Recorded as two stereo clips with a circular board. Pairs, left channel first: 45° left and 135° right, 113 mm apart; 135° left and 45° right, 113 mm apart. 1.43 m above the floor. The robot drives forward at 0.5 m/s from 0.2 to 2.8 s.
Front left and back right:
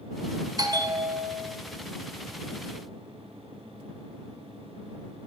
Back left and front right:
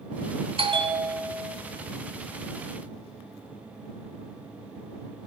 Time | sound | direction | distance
0.6 | a bell | 80° right | 2.5 m